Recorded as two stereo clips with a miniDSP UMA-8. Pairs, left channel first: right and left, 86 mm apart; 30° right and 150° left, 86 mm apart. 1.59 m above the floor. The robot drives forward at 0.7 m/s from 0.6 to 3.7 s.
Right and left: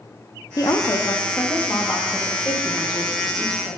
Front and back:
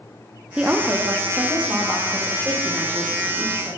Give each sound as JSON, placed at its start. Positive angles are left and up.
{"t": 0.6, "sound": "a woman speaking", "azimuth_deg": -130, "distance_m": 0.5}